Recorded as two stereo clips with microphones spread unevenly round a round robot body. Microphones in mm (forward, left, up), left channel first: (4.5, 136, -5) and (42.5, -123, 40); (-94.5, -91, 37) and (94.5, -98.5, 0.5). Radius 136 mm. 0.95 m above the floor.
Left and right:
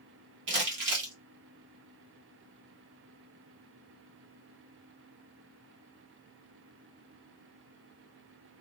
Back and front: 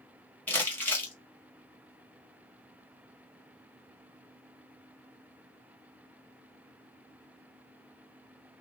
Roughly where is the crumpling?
Right.